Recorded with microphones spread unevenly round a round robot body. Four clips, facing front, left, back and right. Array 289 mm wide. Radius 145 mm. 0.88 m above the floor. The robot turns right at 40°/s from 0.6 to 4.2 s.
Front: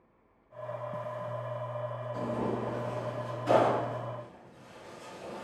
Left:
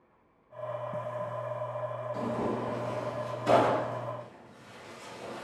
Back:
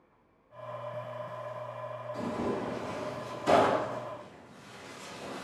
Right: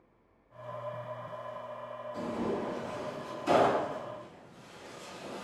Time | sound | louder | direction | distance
2.1 | tearing paper | even, even | 75° left | 1.1 m